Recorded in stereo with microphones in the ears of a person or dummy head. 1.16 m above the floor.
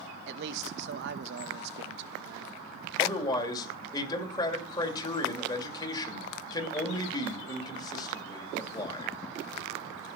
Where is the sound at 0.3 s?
60° right (ahead or behind), 1.1 m.